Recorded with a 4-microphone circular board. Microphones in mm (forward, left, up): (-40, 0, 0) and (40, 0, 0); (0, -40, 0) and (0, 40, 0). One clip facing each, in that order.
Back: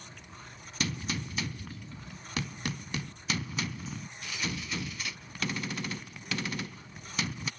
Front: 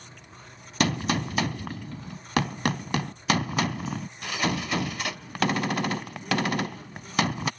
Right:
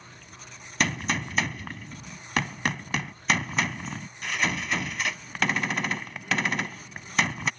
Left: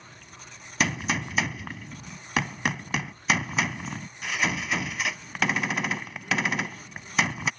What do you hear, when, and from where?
0.8 s a gunshot: straight ahead